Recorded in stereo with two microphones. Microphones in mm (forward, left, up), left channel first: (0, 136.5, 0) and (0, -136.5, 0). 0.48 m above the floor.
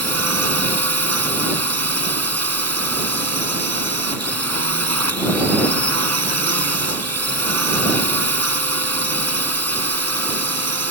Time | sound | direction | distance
0.0 | a drone | 65° right (ahead or behind) | ?